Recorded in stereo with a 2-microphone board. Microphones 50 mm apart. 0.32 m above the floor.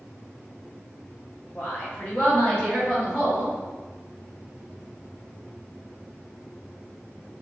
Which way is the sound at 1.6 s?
40° left (ahead or behind).